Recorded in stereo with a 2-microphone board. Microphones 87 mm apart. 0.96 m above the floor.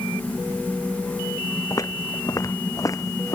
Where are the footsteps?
35° left (ahead or behind).